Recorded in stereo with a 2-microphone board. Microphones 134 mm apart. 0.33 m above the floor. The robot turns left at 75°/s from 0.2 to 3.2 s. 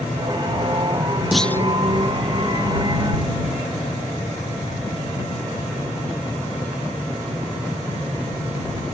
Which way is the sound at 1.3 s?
5° right (ahead or behind).